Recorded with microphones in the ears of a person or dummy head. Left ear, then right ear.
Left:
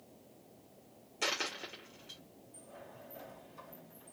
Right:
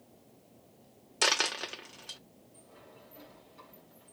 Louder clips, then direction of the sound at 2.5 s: Left 3 dB; 40° left (ahead or behind).